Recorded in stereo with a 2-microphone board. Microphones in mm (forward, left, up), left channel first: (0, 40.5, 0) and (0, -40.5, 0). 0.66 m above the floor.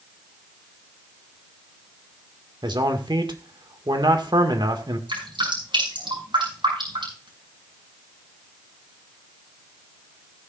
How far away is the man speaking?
About 1.8 m.